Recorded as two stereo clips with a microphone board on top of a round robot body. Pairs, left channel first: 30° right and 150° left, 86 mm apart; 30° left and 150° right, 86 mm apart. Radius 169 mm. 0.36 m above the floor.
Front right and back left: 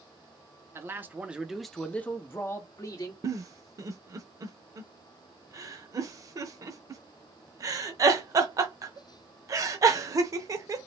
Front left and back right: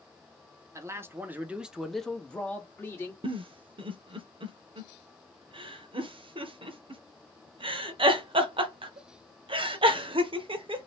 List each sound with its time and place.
0.8 s a man speaking: 175° right, 1.1 m; by 3.1 s 20° right, 1.3 m
3.2 s a giggle: 160° right, 0.8 m